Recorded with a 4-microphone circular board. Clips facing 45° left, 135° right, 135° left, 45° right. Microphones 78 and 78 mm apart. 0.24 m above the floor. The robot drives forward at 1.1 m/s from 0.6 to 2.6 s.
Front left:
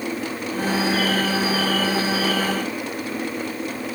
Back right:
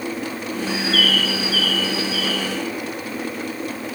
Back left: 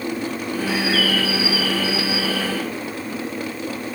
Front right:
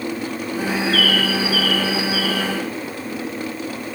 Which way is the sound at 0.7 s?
140° right.